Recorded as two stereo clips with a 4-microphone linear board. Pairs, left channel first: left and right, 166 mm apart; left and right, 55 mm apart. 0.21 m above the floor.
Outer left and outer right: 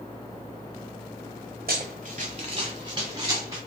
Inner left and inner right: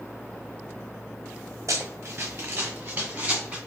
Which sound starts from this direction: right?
Running footsteps, at 1.7 s.